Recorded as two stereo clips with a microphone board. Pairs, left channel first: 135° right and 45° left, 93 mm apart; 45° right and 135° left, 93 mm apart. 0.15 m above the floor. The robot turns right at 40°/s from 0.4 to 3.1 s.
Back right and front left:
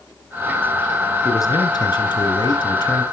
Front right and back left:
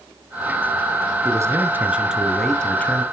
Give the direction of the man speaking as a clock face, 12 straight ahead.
6 o'clock.